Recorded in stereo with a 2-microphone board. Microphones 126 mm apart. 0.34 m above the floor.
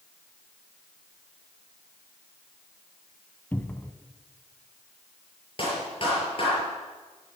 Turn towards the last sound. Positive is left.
turn(degrees=45)  # may be behind; listen again after turning